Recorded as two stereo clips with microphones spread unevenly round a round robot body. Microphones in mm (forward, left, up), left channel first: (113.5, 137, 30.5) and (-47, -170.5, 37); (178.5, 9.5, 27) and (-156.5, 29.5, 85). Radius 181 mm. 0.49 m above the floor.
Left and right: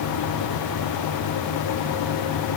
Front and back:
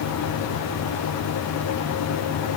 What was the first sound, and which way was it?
Only background noise.